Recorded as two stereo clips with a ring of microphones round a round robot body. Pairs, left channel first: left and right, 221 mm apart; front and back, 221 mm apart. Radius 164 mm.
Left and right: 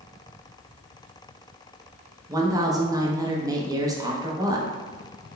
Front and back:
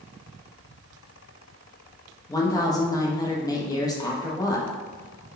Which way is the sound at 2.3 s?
45° right.